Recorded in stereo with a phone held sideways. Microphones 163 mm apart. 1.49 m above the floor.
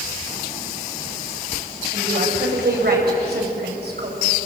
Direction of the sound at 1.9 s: 80° right.